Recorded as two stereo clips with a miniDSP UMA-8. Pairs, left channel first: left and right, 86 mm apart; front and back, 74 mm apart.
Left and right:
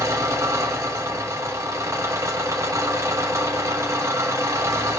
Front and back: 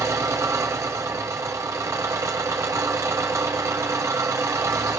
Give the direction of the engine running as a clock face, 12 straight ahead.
5 o'clock.